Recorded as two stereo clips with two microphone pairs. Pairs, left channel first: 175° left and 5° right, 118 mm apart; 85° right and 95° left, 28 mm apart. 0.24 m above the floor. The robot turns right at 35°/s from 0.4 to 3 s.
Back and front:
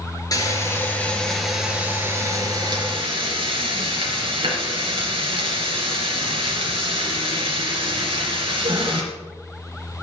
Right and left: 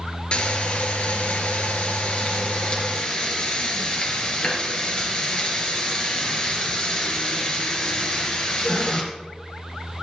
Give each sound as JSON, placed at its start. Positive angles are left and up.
{"t": 0.3, "sound": "frying", "azimuth_deg": -130, "distance_m": 4.0}